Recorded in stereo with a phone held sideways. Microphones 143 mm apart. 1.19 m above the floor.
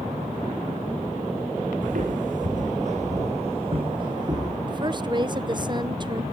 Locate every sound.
1.8 s footsteps: 70° right (ahead or behind), 4 m; by 4.6 s 25° right (ahead or behind), 4 m
4.7 s a woman speaking: 30° right (ahead or behind), 0.8 m